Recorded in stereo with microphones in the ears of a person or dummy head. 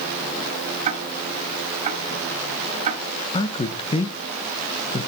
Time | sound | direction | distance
0.8 | ticking | 40° right (ahead or behind) | 2 m
3.3 | a man speaking | 25° left (ahead or behind) | 1.3 m